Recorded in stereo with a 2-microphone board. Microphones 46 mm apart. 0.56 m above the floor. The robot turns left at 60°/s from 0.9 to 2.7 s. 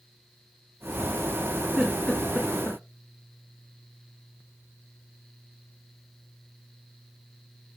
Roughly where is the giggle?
Centre.